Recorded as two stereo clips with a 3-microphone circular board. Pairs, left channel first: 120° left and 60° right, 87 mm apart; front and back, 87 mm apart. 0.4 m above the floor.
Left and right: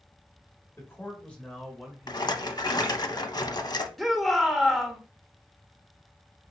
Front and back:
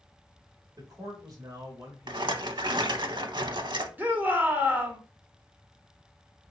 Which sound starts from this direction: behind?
A man speaking, at 0.8 s.